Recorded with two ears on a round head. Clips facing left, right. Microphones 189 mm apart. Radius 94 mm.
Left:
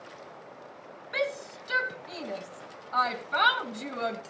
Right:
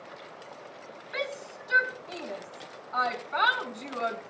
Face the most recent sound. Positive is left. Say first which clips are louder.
# left 4 dB
turn(degrees=50)  # may be behind; listen again after turning